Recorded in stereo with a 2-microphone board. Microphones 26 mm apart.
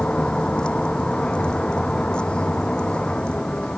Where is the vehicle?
40° left (ahead or behind).